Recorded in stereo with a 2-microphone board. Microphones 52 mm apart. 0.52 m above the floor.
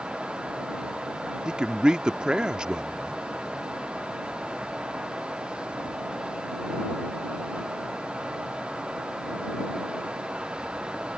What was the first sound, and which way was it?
A man speaking, 20° right (ahead or behind).